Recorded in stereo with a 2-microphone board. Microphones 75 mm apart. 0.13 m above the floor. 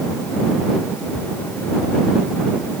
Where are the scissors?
No scissors in this recording.